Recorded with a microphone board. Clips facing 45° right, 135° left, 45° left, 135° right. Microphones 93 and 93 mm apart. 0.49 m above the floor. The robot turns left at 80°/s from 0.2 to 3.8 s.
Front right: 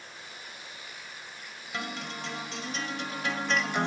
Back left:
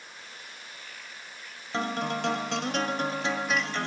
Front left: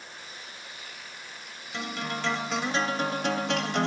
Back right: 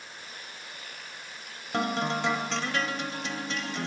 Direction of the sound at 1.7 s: 170° right.